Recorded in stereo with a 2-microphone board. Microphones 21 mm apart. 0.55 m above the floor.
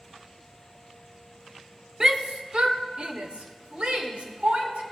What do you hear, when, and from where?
2.0 s a shout: 35° right (ahead or behind), 1.0 m; by 4.8 s 75° right (ahead or behind), 3 m